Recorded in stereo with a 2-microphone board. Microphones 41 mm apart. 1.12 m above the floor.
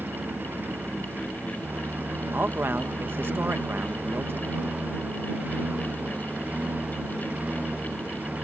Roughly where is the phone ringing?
I don't hear a phone ringing.